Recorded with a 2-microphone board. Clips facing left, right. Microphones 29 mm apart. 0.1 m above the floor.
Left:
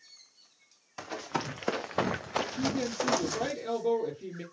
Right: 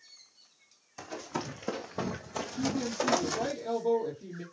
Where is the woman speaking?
50° left (ahead or behind), 2.5 m.